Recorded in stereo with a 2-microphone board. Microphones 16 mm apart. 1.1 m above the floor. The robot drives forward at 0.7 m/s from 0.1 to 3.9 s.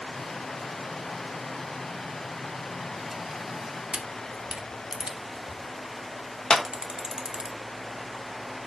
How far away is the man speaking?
No man speaking in this recording.